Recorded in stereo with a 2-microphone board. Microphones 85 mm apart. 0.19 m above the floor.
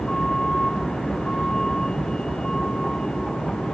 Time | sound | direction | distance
0.0 | a vehicle | 5° left (ahead or behind) | ?